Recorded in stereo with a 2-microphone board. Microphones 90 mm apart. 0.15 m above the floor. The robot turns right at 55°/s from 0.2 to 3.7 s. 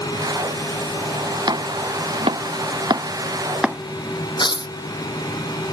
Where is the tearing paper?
60° left (ahead or behind).